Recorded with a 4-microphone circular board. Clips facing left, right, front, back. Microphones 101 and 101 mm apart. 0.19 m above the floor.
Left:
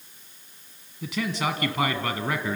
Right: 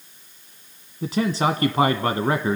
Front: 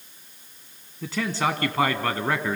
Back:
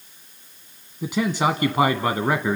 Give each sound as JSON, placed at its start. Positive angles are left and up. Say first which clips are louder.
{"t": 1.0, "sound": "a man speaking", "louder": "right 6 dB, back 4 dB", "azimuth_deg": -115, "distance_m": 1.3}